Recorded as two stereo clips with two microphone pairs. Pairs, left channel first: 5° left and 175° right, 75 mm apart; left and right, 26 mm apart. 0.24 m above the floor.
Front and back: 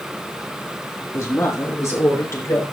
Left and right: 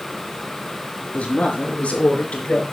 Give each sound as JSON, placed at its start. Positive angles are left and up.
{"t": 1.1, "sound": "a woman speaking", "azimuth_deg": 55, "distance_m": 5.0}